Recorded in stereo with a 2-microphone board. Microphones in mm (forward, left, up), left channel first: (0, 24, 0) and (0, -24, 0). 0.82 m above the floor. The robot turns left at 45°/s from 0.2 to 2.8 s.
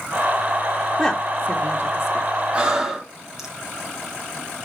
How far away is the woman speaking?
About 1.1 m.